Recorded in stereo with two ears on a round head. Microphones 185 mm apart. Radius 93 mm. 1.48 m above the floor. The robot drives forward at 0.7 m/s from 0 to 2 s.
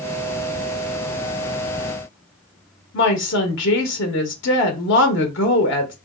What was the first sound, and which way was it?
A woman speaking, 60° left (ahead or behind).